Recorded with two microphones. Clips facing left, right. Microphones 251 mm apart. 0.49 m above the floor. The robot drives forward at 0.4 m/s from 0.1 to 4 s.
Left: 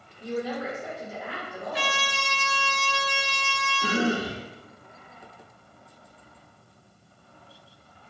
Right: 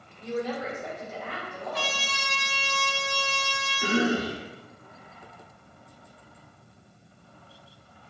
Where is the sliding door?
No sliding door in this recording.